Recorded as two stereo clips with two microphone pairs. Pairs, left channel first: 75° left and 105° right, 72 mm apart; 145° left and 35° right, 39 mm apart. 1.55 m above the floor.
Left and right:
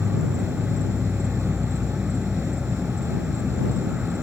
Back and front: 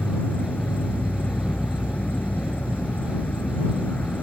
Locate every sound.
0.0 s an insect: straight behind